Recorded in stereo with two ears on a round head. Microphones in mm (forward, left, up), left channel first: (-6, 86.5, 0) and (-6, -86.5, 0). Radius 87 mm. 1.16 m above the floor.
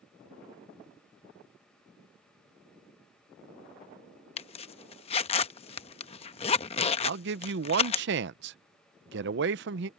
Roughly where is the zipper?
Left.